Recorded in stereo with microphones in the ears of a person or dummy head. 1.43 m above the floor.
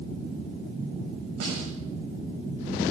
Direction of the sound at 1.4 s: 70° right (ahead or behind).